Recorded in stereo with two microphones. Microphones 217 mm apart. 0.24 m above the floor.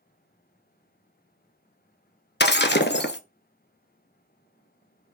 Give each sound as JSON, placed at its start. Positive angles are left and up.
{"t": 2.4, "sound": "breaking glass", "side_deg": 55, "distance_m": 0.5}